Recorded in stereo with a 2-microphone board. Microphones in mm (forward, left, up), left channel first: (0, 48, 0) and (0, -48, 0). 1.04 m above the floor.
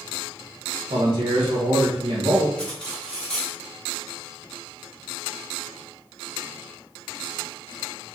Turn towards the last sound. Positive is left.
turn(degrees=10)  # may be behind; listen again after turning